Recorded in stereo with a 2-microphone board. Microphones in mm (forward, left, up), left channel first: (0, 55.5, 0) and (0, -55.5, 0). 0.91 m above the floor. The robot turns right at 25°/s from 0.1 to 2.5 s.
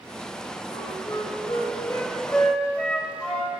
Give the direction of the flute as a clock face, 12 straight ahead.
8 o'clock.